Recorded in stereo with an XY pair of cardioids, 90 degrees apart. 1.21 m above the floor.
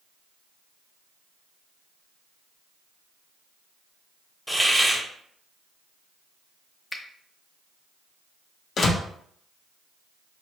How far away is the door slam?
About 0.6 m.